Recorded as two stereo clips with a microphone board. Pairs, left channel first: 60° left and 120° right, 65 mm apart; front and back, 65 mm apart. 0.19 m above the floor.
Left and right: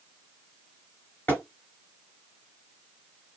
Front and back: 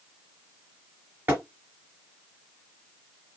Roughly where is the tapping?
Behind left.